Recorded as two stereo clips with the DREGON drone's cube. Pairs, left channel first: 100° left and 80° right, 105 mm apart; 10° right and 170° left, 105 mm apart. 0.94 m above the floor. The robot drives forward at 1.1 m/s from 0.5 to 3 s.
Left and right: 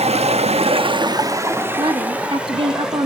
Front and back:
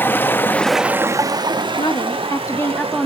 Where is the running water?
85° right, 0.8 m; by 3.1 s 165° right, 3 m.